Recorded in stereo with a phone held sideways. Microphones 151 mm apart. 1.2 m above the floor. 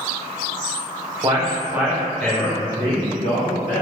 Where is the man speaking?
30° right (ahead or behind), 0.8 m; by 3.8 s 55° left (ahead or behind), 1.0 m.